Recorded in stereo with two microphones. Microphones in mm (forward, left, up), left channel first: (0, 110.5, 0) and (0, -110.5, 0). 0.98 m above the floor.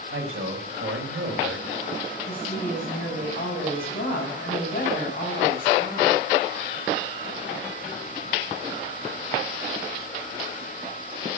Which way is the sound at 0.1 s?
75° right (ahead or behind).